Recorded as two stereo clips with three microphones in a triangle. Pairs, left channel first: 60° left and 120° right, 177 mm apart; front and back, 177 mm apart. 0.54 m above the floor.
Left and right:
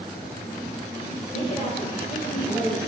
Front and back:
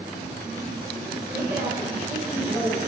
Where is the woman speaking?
105° left, 2.5 m; by 2.8 s 100° left, 3.5 m.